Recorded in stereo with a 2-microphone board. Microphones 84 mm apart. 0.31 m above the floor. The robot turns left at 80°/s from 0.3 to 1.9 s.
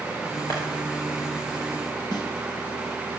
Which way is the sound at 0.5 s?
45° left (ahead or behind).